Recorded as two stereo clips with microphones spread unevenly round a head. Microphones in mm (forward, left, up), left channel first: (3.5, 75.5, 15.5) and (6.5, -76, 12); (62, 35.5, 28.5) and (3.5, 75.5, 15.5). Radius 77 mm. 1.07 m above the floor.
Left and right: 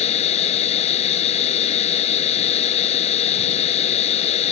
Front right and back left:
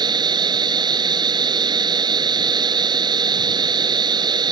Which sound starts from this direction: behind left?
A machine running, at 0.0 s.